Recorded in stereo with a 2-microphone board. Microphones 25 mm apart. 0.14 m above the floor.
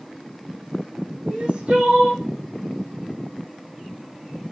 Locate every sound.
1.2 s crying: 55° right (ahead or behind), 5.5 m